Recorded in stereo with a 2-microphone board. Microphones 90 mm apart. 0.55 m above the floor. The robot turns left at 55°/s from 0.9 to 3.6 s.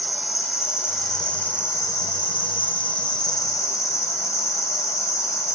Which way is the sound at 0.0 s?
175° right.